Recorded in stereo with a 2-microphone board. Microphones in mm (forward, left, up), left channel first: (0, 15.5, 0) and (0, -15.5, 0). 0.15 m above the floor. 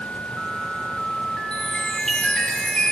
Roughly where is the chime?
Left.